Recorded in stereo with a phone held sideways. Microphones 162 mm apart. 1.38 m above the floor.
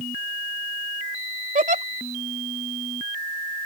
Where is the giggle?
55° right (ahead or behind).